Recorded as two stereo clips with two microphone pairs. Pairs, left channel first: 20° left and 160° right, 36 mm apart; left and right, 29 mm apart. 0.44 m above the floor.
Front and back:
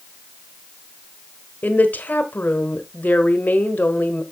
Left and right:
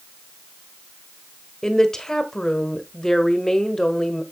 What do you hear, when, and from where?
1.6 s a woman speaking: 15° left, 1.2 m